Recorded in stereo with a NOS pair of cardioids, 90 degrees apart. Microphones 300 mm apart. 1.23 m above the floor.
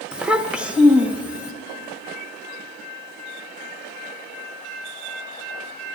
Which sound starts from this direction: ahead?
A child speaking, at 0.1 s.